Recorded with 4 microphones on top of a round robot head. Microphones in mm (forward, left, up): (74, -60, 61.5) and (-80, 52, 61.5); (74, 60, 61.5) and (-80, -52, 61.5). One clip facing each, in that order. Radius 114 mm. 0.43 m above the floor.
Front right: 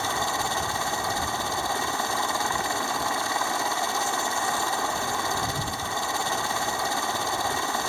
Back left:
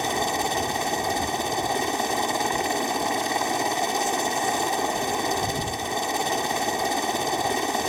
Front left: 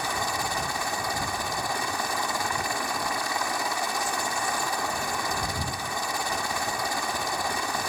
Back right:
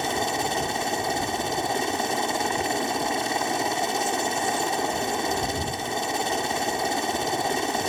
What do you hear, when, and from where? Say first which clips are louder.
0.0 s a helicopter: back left 4 dB, back right 5 dB; 170° right